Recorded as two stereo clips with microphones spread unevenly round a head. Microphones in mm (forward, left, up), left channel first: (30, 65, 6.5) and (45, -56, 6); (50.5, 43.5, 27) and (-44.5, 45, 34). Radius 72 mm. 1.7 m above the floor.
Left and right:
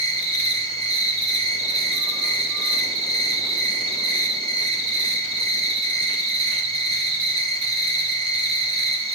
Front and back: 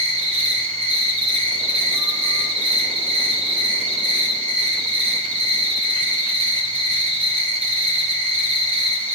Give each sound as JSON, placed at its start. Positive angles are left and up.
{"t": 0.0, "sound": "an insect", "azimuth_deg": -140, "distance_m": 2.5}